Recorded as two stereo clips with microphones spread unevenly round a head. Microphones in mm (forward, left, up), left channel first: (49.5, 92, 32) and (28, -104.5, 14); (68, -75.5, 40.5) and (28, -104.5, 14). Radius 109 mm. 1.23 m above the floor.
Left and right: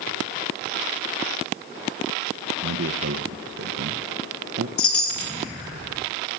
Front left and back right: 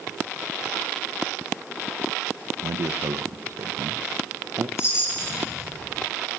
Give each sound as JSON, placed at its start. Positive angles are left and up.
{"t": 2.6, "sound": "a man speaking", "azimuth_deg": -130, "distance_m": 0.9}
{"t": 4.8, "sound": "a chime", "azimuth_deg": 105, "distance_m": 1.6}